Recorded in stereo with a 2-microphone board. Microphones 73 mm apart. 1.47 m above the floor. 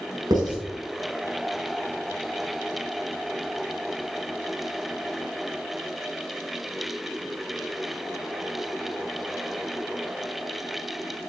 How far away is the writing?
About 5.5 m.